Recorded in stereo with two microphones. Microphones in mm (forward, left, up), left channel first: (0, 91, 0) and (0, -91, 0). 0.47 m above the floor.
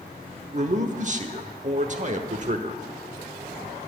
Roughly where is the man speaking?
Right.